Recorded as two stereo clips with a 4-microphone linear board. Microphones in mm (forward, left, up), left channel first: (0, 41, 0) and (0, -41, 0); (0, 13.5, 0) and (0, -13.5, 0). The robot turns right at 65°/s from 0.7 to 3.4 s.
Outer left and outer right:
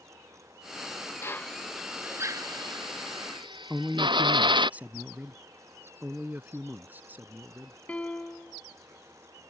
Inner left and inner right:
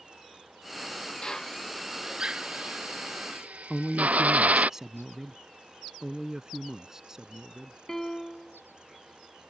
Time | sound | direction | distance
1.2 | a drill | 30° left (ahead or behind) | ?
3.7 | a man speaking | 20° right (ahead or behind) | ?
6.0 | a man speaking | 20° right (ahead or behind) | ?
7.9 | a piano | 15° left (ahead or behind) | ?